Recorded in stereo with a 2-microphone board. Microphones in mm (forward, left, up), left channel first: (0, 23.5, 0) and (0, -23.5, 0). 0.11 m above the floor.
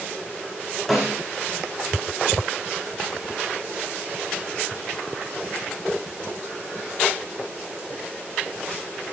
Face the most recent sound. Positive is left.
turn(degrees=5)  # may be behind; listen again after turning